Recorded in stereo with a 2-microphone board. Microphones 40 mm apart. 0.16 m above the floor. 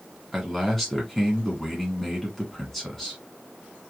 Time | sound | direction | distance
0.3 | a man speaking | 10° left (ahead or behind) | 1.4 m